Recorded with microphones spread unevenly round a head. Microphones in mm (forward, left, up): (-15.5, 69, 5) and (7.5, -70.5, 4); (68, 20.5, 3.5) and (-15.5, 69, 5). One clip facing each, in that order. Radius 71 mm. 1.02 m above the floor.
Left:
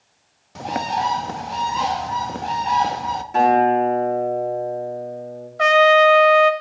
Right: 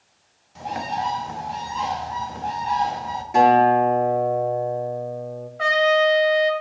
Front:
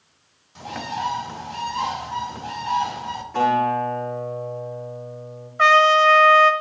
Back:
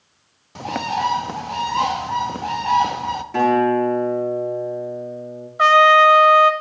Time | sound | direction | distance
0.6 | a bird | 125° left | 1.0 m
3.3 | a guitar | 160° right | 7 m
5.6 | a trumpet | 80° left | 1.7 m